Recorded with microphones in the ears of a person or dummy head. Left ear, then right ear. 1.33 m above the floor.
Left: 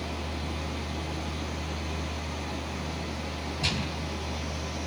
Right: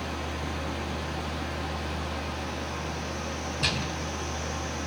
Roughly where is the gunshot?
Right.